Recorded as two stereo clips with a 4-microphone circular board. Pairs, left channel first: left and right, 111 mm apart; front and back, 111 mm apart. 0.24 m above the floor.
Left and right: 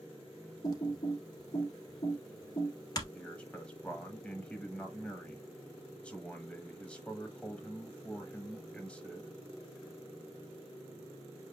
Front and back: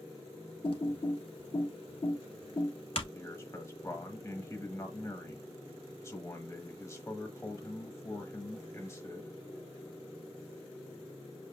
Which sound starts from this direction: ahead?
A man speaking, at 3.1 s.